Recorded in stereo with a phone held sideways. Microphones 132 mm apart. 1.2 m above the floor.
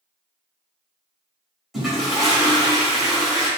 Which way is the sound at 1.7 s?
Centre (ahead or behind).